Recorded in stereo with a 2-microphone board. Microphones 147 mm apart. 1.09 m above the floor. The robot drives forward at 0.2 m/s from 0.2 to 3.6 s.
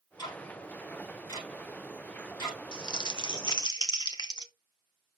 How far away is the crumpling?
About 0.9 m.